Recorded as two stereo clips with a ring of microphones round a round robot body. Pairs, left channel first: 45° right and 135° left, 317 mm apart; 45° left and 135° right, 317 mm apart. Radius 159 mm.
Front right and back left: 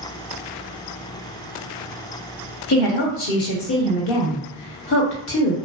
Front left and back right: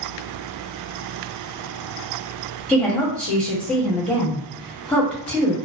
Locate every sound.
2.7 s a woman speaking: 40° right, 1.3 m